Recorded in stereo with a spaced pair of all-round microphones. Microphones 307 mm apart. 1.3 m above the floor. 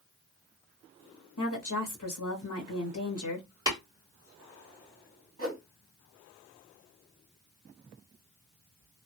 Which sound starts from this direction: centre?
Tapping, at 3.7 s.